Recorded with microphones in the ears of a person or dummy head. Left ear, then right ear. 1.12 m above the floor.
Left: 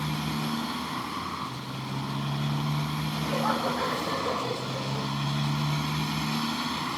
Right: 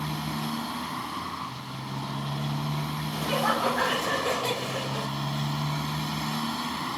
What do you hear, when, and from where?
0.0 s a motorcycle: 5° right (ahead or behind)
3.1 s laughter: 65° right (ahead or behind)